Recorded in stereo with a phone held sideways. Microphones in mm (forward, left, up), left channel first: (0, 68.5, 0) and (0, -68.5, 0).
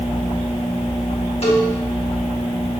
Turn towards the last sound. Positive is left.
turn(degrees=50)  # may be behind; listen again after turning